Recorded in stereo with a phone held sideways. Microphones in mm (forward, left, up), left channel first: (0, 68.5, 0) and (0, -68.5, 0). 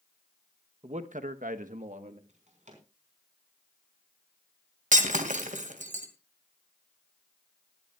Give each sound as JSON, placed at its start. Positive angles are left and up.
{"t": 0.8, "sound": "a man speaking", "side_deg": -45, "distance_m": 0.9}
{"t": 2.3, "sound": "a drawer", "side_deg": -60, "distance_m": 4.0}
{"t": 4.9, "sound": "breaking glass", "side_deg": -65, "distance_m": 2.0}